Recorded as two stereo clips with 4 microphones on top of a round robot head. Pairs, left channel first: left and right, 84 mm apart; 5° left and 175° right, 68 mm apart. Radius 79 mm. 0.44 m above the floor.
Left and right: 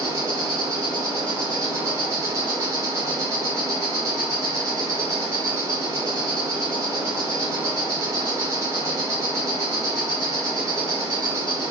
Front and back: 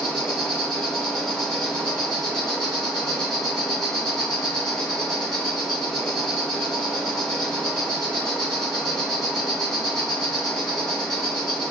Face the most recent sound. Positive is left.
turn(degrees=-75)